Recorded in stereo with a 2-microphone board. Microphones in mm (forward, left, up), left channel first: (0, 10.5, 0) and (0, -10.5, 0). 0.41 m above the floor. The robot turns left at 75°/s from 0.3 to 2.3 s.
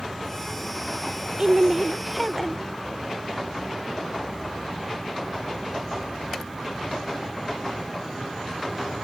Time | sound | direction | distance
1.4 | a woman speaking | 120° right | ?